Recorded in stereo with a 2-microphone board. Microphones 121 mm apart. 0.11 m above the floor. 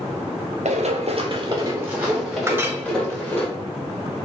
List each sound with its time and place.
0.7 s running footsteps: 80° right, 0.9 m; by 3.5 s 15° left (ahead or behind), 2.0 m
2.5 s a clink: 20° right (ahead or behind), 0.6 m